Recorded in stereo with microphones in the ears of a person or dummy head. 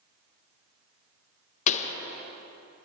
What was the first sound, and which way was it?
A pop, 40° left (ahead or behind).